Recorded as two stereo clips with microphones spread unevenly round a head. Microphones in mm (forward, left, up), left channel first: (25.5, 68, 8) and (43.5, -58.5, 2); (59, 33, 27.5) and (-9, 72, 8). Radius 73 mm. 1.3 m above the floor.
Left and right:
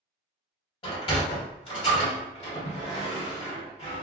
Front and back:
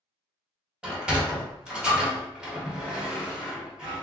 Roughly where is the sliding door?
Ahead left.